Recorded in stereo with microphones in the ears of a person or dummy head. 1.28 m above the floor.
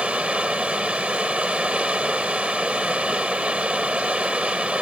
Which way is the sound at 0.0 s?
5° right (ahead or behind).